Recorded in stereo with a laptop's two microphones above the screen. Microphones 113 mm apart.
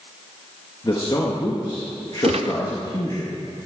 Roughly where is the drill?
No drill in this recording.